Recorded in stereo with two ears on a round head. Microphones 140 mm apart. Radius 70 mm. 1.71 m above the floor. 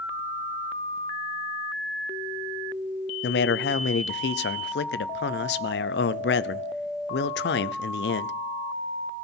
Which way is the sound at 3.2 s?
75° left (ahead or behind).